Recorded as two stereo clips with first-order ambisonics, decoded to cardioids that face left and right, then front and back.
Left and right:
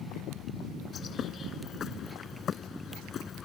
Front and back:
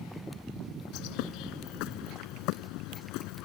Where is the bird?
25° left.